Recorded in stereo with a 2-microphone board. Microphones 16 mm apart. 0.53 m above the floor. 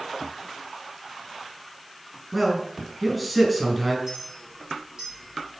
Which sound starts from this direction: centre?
A man speaking, at 2.3 s.